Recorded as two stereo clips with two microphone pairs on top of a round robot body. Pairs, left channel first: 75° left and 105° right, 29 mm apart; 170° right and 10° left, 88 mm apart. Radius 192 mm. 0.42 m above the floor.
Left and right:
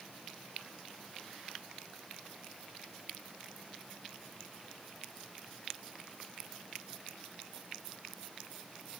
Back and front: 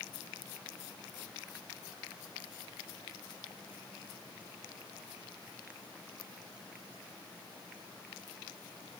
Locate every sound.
Only background noise.